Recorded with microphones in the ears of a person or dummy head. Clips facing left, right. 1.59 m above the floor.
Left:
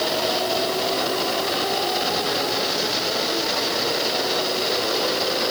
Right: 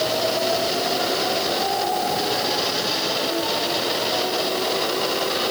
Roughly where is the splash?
No splash in this recording.